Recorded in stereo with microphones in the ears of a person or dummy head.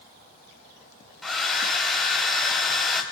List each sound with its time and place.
1.2 s a hair dryer: 5° left (ahead or behind), 2.5 m